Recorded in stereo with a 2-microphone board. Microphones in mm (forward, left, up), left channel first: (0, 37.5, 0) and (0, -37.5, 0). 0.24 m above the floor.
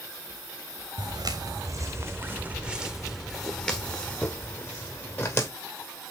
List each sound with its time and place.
1.0 s footsteps: 70° right (ahead or behind), 1.4 m; by 5.5 s 35° left (ahead or behind), 2.5 m